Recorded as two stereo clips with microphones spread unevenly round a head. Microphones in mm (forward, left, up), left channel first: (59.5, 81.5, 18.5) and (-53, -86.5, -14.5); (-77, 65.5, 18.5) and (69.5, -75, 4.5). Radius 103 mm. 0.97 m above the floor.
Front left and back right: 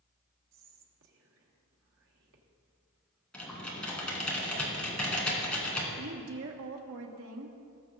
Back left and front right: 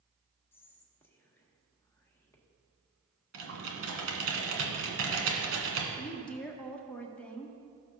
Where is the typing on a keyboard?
20° right, 1.8 m.